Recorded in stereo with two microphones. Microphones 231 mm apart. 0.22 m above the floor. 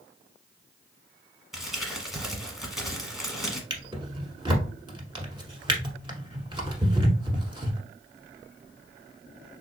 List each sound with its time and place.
1.5 s crumpling: centre (ahead or behind), 1.0 m
3.7 s a drawer: 20° right (ahead or behind), 0.9 m